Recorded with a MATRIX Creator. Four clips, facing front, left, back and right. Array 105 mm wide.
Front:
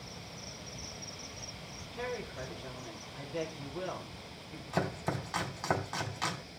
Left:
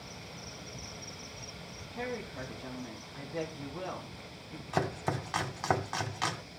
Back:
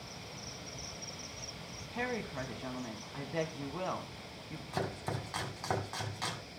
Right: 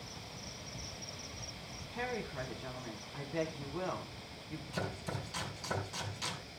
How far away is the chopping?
About 1.5 m.